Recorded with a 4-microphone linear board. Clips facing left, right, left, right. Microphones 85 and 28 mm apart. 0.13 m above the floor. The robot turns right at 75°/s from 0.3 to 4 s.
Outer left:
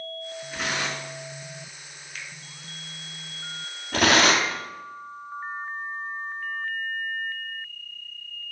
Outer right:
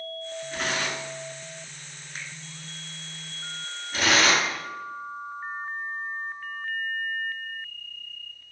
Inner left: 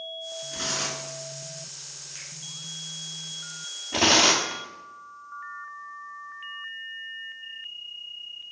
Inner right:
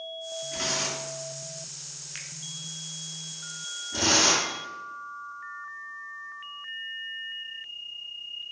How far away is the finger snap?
About 0.9 m.